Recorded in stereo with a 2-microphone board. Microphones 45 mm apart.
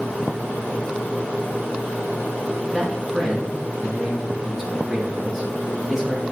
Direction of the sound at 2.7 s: 5° right (ahead or behind).